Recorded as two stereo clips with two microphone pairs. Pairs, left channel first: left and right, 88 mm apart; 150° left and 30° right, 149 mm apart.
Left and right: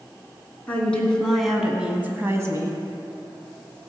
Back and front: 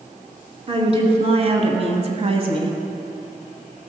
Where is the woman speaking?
20° left, 2.5 m; by 2.8 s 70° right, 1.6 m.